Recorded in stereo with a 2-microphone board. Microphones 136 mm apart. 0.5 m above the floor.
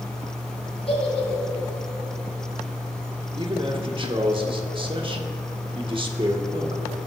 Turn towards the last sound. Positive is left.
turn(degrees=-40)  # may be behind; listen again after turning